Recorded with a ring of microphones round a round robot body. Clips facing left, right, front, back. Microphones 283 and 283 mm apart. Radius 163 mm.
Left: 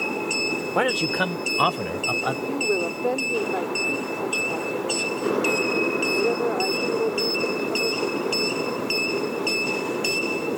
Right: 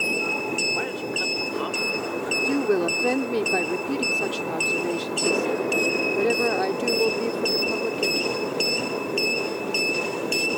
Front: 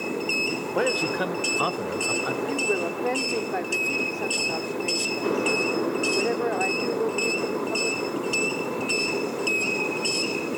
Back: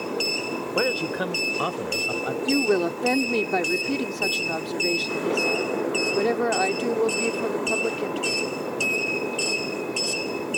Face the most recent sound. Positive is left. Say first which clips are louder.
# right 4 dB, back 8 dB
turn(degrees=-145)